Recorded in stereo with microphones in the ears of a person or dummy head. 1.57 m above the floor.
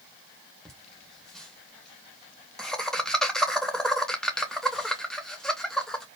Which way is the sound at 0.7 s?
5° left (ahead or behind).